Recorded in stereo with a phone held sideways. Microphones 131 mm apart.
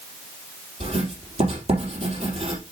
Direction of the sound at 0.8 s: 55° right (ahead or behind).